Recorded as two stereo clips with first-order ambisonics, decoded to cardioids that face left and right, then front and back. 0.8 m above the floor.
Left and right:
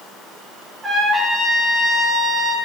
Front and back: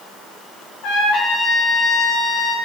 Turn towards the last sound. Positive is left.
turn(degrees=-20)